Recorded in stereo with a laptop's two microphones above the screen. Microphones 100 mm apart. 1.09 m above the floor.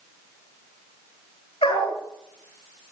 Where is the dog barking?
75° left (ahead or behind), 9 m.